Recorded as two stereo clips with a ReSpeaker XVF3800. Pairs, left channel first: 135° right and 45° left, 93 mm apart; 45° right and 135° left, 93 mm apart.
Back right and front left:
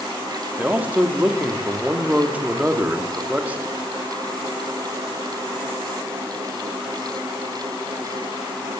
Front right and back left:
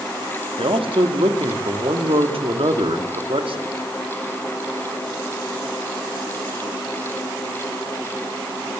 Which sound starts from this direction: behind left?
A man speaking, at 0.6 s.